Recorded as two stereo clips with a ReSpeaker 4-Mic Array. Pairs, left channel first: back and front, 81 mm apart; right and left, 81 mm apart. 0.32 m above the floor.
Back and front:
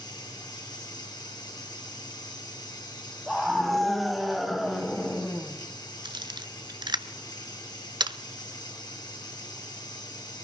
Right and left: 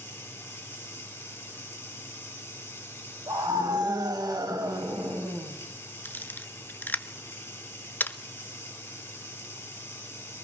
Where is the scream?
90° left, 1.7 m.